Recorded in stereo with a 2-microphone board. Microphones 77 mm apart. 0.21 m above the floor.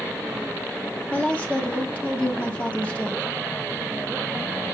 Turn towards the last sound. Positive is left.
turn(degrees=20)  # may be behind; listen again after turning